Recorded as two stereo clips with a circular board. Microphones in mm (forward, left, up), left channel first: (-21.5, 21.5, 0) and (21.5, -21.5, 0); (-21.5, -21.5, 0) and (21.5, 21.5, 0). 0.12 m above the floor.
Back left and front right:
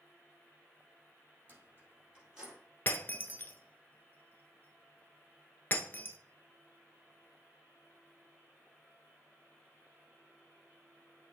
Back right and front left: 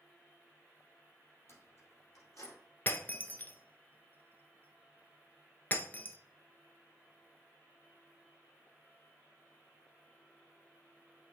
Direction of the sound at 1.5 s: 105° right.